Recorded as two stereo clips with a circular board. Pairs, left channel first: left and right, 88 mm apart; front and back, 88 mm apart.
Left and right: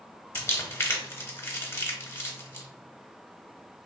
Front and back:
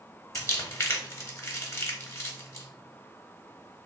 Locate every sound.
0.3 s crumpling: 45° left, 0.8 m